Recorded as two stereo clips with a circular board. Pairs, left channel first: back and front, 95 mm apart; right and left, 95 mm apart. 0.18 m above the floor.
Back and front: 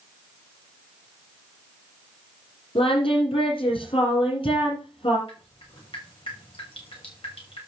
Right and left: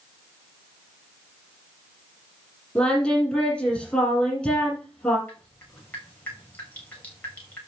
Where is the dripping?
160° right, 6 m.